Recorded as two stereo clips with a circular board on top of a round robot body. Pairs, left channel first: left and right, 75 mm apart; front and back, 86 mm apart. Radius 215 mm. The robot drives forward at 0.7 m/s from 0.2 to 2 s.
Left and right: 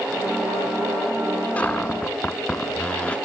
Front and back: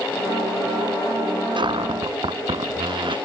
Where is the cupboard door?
160° left; by 3.2 s 165° left.